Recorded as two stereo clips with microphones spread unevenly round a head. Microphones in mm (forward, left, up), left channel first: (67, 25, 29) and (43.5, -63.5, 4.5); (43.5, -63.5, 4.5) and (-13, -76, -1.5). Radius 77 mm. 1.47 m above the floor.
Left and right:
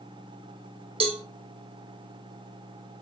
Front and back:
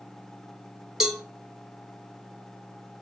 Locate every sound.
1.0 s a cowbell: 80° right, 1.1 m